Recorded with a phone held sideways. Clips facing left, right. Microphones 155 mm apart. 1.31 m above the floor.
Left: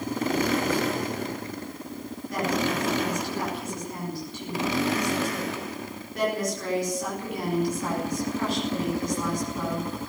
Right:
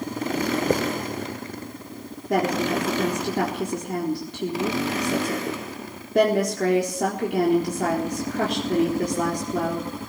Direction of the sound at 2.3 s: 85° right.